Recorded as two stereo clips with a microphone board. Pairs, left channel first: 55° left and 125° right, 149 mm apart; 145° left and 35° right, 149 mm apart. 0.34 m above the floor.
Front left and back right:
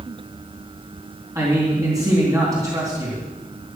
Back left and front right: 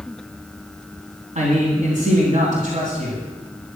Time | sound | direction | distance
1.4 | a man speaking | 60° right | 3 m